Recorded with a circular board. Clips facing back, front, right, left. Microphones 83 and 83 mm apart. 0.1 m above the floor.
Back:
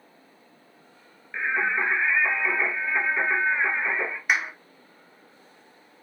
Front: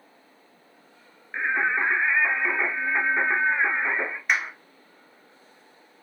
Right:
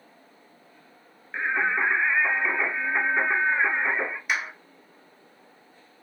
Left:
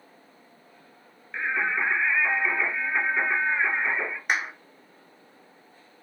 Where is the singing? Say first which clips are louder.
Front 1 dB, right 2 dB; 45° right, 1.1 m.